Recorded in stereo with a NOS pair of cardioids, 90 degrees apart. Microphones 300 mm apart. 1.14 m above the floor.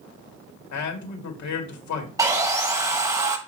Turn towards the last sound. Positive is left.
turn(degrees=-10)